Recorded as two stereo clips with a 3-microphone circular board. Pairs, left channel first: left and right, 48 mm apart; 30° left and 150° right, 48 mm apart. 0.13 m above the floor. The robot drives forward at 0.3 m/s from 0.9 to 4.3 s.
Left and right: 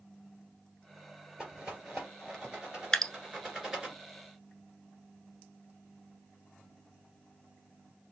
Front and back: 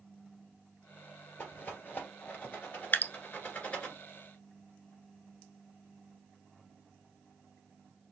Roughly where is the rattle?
Ahead.